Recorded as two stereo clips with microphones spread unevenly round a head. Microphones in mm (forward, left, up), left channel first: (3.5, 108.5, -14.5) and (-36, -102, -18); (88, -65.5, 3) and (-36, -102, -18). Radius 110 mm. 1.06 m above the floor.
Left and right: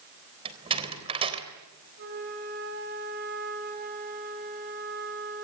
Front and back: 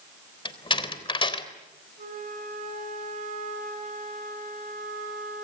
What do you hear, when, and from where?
0.5 s a door slam: 35° right, 3.5 m
2.0 s a flute: 145° right, 5.5 m